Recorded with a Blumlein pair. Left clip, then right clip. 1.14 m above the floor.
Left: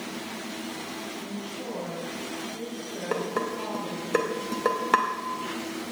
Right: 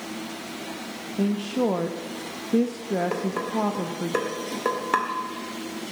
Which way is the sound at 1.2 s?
45° right.